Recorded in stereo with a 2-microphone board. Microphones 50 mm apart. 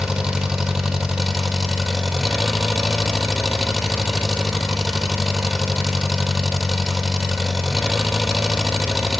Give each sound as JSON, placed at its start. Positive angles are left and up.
{"t": 0.0, "sound": "an engine running", "side_deg": -10, "distance_m": 1.5}